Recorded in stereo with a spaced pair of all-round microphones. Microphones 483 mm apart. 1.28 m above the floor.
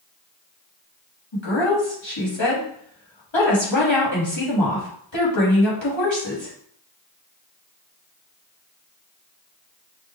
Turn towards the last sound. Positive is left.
turn(degrees=65)  # may be behind; listen again after turning